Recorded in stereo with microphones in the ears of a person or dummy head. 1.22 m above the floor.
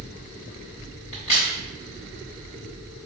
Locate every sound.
1.1 s a crack: 30° left (ahead or behind), 1.1 m